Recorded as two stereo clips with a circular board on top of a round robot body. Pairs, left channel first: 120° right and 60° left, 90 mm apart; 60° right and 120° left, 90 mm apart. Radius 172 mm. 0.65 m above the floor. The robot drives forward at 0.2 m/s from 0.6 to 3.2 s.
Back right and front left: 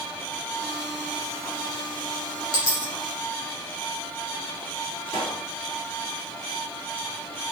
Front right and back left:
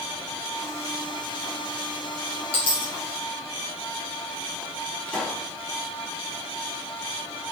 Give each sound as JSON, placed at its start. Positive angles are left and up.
{"t": 2.5, "sound": "a dropped coin", "azimuth_deg": -75, "distance_m": 2.0}
{"t": 5.1, "sound": "a pop", "azimuth_deg": -135, "distance_m": 2.5}